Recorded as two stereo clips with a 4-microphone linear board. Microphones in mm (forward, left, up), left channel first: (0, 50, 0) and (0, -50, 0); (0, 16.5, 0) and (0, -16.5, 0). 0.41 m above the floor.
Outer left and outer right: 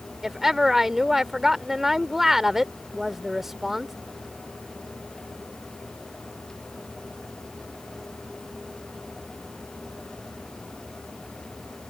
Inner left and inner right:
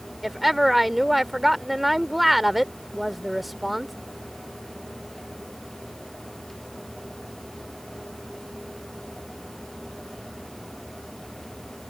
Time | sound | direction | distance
0.2 | a woman speaking | 5° right (ahead or behind) | ?